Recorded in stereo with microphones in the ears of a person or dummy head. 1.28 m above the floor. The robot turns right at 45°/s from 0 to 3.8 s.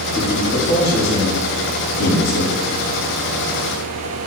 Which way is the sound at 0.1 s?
Centre (ahead or behind).